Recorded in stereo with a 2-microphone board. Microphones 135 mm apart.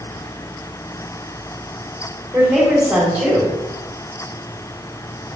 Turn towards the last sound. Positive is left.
turn(degrees=-15)  # may be behind; listen again after turning